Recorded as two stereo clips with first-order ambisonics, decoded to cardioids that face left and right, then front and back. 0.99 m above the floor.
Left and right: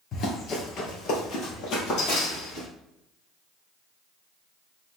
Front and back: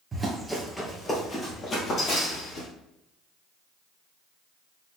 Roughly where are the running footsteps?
Behind left.